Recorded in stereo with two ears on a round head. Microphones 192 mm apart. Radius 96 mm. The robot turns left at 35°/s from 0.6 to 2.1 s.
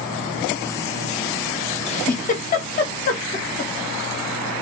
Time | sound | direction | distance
1.9 | a giggle | 30° left (ahead or behind) | 0.6 m